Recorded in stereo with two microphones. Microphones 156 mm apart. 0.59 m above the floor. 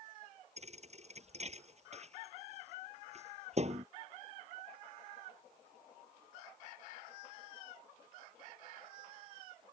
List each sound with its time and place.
0.6 s a thud: 45° right (ahead or behind)